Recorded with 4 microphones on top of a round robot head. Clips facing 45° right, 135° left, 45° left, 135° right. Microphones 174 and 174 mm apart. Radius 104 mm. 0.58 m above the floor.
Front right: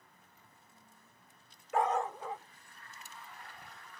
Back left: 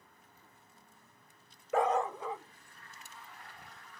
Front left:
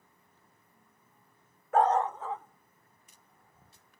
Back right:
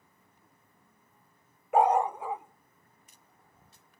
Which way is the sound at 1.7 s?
150° left.